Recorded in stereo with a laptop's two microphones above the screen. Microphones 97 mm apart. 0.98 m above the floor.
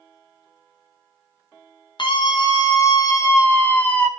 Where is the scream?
55° left (ahead or behind), 1.7 m; by 4.1 s 10° left (ahead or behind), 1.5 m.